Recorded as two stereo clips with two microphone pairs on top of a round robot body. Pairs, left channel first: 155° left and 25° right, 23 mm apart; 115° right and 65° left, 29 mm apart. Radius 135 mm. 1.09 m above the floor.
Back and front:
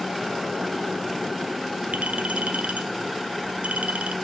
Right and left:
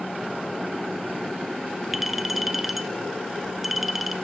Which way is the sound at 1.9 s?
20° right.